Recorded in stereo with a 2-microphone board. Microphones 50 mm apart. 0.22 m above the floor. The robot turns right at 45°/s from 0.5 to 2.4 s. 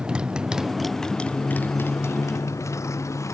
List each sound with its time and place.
0.0 s a motorcycle: 15° right (ahead or behind); by 3.3 s 80° left